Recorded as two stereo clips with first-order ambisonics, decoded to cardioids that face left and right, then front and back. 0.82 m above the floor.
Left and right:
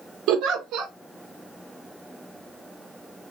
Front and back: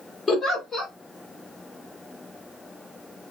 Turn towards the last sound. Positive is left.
turn(degrees=-70)